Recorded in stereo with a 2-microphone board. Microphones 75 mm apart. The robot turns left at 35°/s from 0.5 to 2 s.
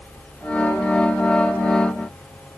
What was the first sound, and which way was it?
Only background noise.